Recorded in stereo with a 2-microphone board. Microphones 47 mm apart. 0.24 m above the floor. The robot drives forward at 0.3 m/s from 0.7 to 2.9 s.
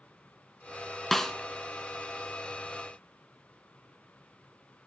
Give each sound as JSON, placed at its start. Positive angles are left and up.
{"t": 1.1, "sound": "a snare drum", "side_deg": 5, "distance_m": 0.6}